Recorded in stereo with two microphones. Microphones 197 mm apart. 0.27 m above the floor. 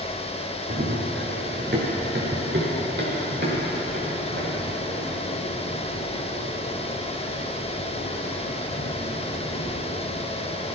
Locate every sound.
0.7 s running footsteps: 50° right (ahead or behind), 2.5 m; by 10.7 s 65° right (ahead or behind), 9 m